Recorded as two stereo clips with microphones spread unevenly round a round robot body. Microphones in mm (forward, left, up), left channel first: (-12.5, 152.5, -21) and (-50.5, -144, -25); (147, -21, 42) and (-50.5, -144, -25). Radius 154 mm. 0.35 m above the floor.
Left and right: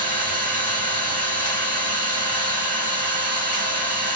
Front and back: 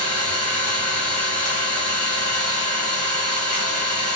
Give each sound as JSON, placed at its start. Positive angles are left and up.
{"t": 0.0, "sound": "an engine running", "azimuth_deg": 50, "distance_m": 1.5}